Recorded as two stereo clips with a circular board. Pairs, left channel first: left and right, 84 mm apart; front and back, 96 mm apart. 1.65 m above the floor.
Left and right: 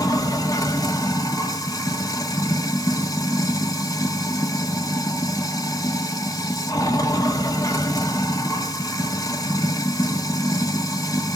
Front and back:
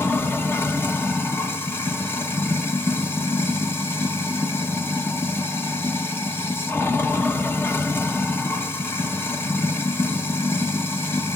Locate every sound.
0.0 s running water: 60° left, 1.2 m